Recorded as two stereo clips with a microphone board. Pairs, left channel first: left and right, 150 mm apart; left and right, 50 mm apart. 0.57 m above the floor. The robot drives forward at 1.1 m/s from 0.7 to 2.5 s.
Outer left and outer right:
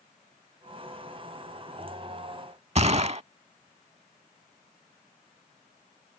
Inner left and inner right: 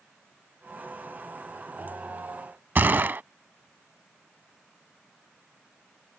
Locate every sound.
2.8 s a gunshot: 45° right (ahead or behind)